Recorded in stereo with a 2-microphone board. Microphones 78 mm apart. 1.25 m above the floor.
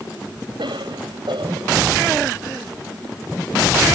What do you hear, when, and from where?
0.6 s a cough: 85° right